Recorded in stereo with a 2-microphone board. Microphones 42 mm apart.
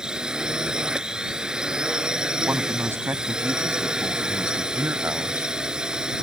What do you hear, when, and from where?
0.0 s a drone: 20° right (ahead or behind)
2.5 s a man speaking: 70° right (ahead or behind)
4.8 s a man speaking: 65° right (ahead or behind)